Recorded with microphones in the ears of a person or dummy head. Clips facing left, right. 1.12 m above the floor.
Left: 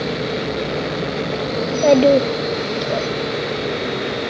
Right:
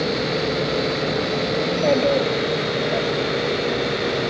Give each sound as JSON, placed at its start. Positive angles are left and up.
{"t": 1.6, "sound": "a child speaking", "side_deg": 60, "distance_m": 0.5}